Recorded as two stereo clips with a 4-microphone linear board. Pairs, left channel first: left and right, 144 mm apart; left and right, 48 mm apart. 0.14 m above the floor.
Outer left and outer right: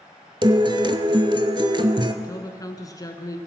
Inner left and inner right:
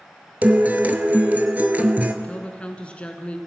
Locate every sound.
0.4 s a guitar: 35° right (ahead or behind), 0.6 m
2.2 s a woman speaking: 25° left (ahead or behind), 1.2 m